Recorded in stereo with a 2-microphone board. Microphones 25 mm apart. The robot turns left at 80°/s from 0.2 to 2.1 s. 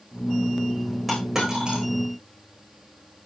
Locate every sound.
1.1 s a dropped coin: 5° left (ahead or behind), 10 m; by 1.8 s 55° right (ahead or behind), 10 m